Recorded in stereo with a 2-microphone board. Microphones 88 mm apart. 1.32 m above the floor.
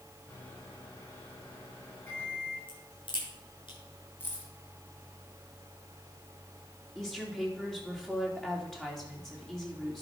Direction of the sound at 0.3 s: 30° left (ahead or behind).